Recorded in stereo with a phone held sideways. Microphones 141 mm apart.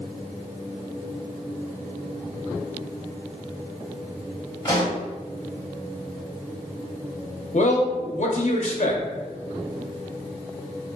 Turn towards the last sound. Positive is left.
turn(degrees=55)  # may be behind; listen again after turning